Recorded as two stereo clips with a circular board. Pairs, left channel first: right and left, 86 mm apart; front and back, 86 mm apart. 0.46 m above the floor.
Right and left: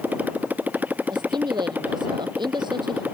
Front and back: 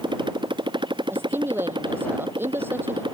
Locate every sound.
0.0 s a motorcycle: 160° left
1.1 s a woman speaking: 115° left